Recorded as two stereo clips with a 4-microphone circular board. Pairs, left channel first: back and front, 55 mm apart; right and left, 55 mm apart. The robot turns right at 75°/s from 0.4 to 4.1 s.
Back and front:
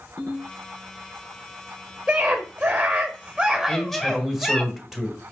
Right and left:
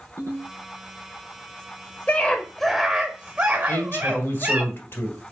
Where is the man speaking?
115° right, 1.4 m; by 5.2 s 80° right, 1.4 m.